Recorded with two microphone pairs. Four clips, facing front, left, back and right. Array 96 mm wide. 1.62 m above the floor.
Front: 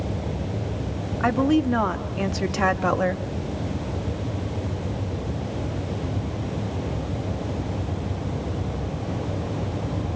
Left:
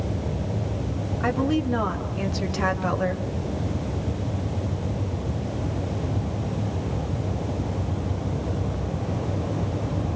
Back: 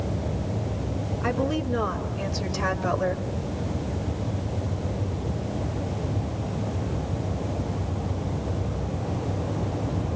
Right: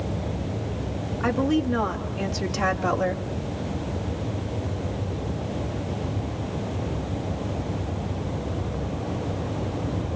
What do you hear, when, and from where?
1.2 s a woman speaking: straight ahead, 3.5 m; by 3.2 s 5° right, 2.0 m